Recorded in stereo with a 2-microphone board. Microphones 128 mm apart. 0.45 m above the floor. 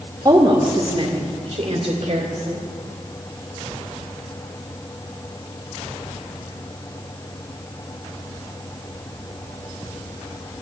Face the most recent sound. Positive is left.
turn(degrees=-60)  # may be behind; listen again after turning